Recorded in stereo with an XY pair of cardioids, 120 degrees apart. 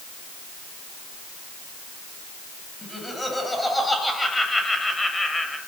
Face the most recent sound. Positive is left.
turn(degrees=15)